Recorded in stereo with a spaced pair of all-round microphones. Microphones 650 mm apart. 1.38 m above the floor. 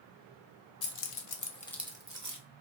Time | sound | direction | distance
0.8 | keys jangling | 70° left (ahead or behind) | 0.7 m